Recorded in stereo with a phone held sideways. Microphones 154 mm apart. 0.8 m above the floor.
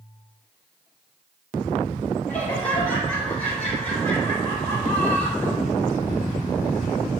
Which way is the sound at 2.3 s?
10° left (ahead or behind).